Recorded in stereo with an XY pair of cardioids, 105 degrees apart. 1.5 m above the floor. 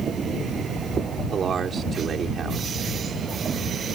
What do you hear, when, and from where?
1.3 s a man speaking: 50° right